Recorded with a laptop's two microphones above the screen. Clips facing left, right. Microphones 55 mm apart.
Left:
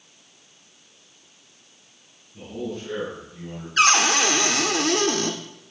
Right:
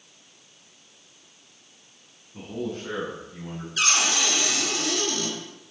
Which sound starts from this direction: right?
A man speaking, at 2.3 s.